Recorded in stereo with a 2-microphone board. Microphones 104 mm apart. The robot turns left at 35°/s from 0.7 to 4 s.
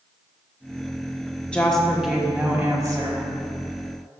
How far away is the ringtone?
I don't hear a ringtone.